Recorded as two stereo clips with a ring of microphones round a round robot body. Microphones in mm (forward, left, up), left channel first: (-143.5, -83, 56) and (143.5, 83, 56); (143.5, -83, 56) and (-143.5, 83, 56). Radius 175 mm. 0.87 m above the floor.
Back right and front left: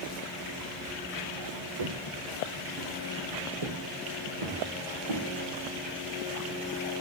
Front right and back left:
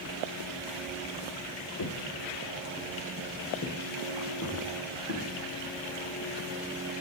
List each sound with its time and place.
1.8 s footsteps: 20° left, 1.7 m; by 5.2 s 25° left, 5 m